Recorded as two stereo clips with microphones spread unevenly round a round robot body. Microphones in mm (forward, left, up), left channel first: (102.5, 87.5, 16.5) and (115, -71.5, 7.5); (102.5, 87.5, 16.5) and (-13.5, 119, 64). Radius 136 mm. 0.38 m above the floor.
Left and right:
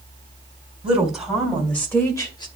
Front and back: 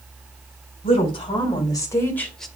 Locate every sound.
0.8 s a woman speaking: 5° right, 3 m; by 2.5 s 45° left, 1.7 m